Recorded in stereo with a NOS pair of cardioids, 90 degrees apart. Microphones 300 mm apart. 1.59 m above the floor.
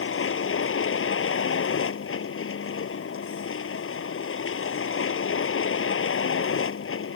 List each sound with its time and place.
0.0 s a vehicle: 45° left